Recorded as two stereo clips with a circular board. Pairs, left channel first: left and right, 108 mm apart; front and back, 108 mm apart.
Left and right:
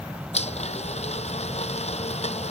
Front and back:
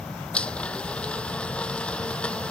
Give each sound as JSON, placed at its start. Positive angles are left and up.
{"t": 0.3, "sound": "a blender", "azimuth_deg": 80}